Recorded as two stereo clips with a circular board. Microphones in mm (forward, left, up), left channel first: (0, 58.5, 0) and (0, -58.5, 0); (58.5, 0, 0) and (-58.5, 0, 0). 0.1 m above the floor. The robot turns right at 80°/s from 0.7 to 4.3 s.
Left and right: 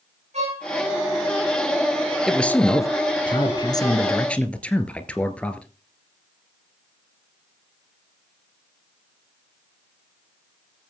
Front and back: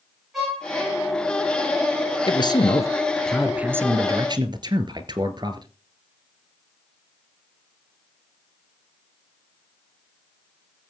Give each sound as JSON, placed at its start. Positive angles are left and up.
{"t": 0.3, "sound": "a violin", "azimuth_deg": -90, "distance_m": 8.0}
{"t": 2.3, "sound": "a man speaking", "azimuth_deg": 0, "distance_m": 1.6}